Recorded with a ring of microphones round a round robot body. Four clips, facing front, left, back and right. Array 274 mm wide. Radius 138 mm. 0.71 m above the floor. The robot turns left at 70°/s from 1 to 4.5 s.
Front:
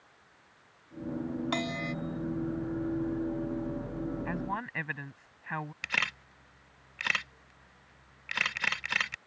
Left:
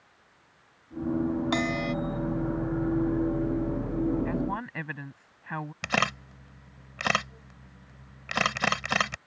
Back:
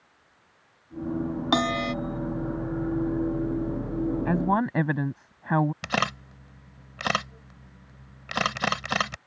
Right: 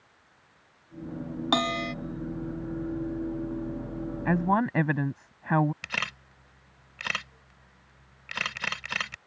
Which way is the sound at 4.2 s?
130° right.